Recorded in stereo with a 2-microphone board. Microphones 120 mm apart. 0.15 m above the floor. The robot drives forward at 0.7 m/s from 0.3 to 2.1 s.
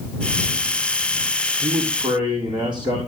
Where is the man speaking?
40° right (ahead or behind), 5.5 m; by 3.0 s 35° right (ahead or behind), 5.5 m.